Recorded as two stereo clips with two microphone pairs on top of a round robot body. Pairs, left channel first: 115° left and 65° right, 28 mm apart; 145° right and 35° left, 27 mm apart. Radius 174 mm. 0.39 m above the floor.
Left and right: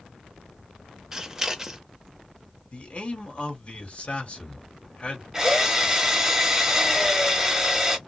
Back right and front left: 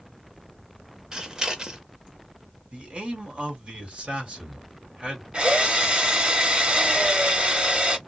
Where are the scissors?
10° right, 1.2 m.